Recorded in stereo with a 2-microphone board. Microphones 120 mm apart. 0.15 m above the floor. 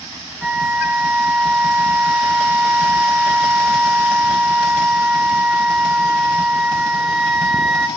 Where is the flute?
5° right (ahead or behind), 0.7 m.